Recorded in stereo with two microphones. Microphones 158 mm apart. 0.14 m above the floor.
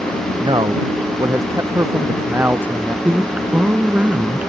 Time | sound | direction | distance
0.4 | a man speaking | 30° right (ahead or behind) | ?
3.0 | a woman speaking | 10° right (ahead or behind) | ?